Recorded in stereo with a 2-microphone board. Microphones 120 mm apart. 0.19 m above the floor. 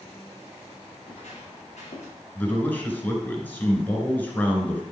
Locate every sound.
1.0 s footsteps: 65° left (ahead or behind), 5.5 m
2.4 s a man speaking: 15° left (ahead or behind), 2.5 m